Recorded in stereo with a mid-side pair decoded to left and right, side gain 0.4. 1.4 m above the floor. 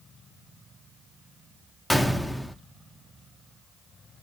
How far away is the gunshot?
About 0.6 m.